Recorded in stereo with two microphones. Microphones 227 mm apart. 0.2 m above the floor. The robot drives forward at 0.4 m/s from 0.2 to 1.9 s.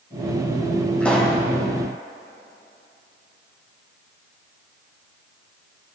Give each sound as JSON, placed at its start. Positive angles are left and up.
{"t": 1.0, "sound": "a pop", "side_deg": 5, "distance_m": 2.0}